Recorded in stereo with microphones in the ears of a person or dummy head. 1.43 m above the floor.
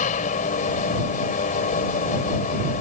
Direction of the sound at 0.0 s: 40° left (ahead or behind).